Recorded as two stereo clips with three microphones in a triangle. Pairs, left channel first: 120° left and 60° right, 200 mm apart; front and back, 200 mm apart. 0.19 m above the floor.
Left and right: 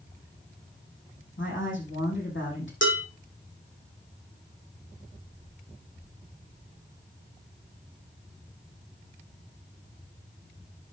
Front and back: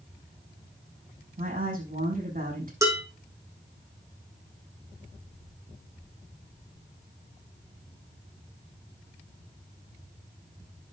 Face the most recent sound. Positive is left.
turn(degrees=105)